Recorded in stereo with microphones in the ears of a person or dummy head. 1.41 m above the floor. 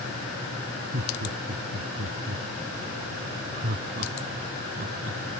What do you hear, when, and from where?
0.9 s laughter: 60° right (ahead or behind); by 5.2 s 50° right (ahead or behind)